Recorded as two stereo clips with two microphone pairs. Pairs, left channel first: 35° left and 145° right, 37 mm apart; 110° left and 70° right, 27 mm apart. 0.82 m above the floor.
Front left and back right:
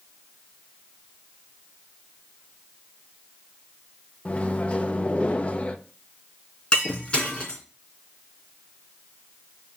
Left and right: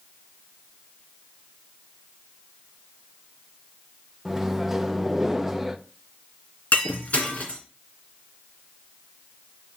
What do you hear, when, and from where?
4.2 s a microwave: 5° left, 0.6 m
6.7 s breaking glass: 95° left, 2.5 m